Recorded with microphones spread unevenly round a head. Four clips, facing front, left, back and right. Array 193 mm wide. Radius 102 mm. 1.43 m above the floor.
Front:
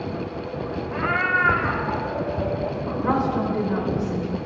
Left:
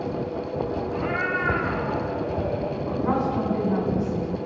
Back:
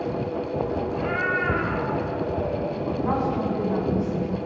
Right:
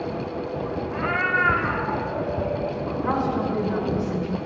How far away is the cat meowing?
About 0.9 m.